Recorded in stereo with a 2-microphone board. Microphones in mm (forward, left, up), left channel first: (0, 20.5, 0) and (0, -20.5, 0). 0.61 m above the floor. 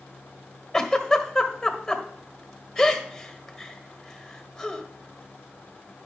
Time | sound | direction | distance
0.7 | a giggle | centre (ahead or behind) | 1.7 m